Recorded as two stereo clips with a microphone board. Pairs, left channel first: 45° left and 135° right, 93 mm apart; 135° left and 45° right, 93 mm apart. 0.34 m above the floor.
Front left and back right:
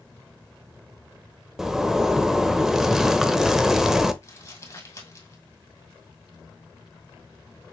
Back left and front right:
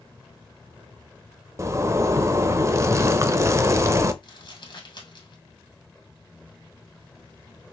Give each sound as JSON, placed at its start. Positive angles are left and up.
{"t": 1.6, "sound": "a zipper", "azimuth_deg": -55, "distance_m": 0.6}
{"t": 4.2, "sound": "crumpling", "azimuth_deg": 100, "distance_m": 2.0}